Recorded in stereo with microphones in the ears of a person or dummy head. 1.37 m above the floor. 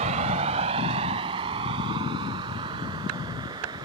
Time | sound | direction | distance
0.0 | a vehicle | 35° right (ahead or behind) | ?